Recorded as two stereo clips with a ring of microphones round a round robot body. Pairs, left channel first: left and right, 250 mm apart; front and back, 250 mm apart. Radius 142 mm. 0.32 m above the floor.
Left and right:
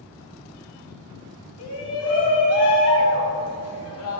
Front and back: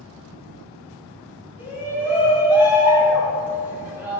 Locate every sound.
1.6 s a shout: 100° left, 1.9 m